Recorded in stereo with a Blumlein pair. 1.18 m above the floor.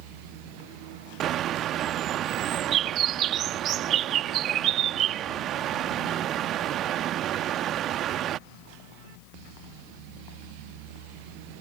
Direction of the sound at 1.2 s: 35° right.